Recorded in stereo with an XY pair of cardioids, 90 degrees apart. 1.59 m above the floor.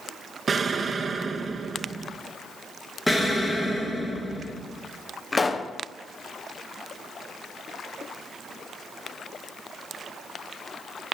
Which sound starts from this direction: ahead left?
A pop, at 5.3 s.